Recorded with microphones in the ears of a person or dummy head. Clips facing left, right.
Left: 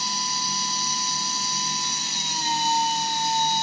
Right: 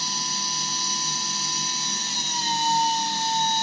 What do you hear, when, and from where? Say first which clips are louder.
0.0 s a machine running: left 2 dB; 10° left (ahead or behind), 1.1 m